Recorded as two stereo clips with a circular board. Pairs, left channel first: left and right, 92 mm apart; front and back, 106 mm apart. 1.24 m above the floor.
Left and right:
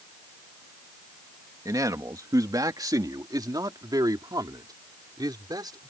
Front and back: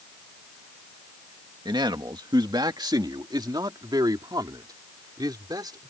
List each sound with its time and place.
1.6 s a man speaking: 135° right; by 5.9 s 130° right